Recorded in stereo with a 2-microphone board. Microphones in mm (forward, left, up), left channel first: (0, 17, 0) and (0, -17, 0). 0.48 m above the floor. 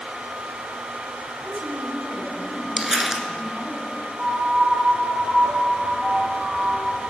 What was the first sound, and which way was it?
A woman speaking, 55° right (ahead or behind).